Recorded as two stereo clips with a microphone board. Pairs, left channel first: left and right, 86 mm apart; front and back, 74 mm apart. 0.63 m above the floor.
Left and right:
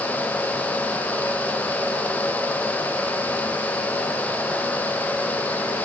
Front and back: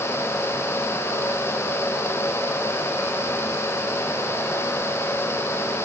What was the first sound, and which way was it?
Only background noise.